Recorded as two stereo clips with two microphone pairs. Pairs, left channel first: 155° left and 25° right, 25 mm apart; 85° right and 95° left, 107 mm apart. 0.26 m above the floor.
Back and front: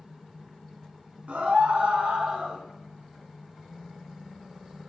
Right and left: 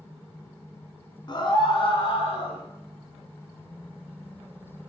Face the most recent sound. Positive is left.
turn(degrees=-60)